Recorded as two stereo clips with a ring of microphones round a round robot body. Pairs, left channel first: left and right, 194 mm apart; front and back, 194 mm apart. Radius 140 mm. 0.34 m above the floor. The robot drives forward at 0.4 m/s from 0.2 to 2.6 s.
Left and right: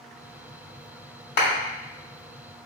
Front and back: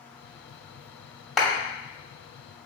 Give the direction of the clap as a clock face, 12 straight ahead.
9 o'clock.